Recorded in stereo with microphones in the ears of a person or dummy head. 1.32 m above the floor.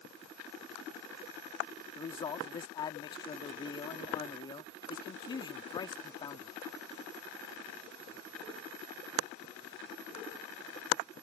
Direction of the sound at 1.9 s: 20° left (ahead or behind).